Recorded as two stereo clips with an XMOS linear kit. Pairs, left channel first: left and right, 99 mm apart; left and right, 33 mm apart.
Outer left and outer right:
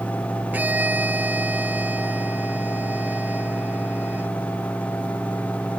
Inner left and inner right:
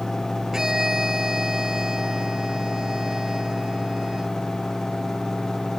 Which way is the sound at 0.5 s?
15° right (ahead or behind).